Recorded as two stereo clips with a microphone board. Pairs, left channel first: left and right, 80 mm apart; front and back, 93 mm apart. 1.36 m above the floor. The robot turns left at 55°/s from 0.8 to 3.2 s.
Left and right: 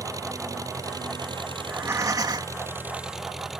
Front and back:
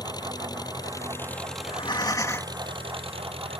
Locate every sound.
0.0 s an engine running: 45° right; by 3.6 s 175° right
1.6 s breathing: 20° right; by 2.6 s 75° right